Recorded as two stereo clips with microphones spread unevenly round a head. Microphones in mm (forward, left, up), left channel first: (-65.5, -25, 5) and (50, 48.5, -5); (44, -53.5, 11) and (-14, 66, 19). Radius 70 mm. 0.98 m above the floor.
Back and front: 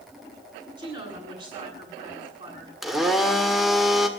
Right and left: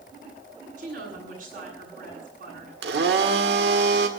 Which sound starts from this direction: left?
A woman speaking, at 0.8 s.